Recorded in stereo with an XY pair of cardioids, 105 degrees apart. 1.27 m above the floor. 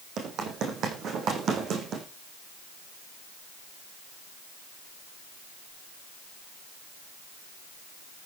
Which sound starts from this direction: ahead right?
Running footsteps, at 0.2 s.